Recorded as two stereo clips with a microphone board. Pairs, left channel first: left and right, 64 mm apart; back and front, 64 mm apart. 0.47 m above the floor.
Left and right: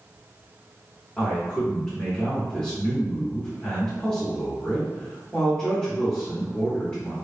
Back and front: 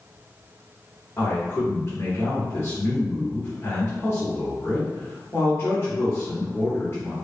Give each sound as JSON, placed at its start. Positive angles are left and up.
{"t": 1.2, "sound": "a man speaking", "azimuth_deg": 160, "distance_m": 0.9}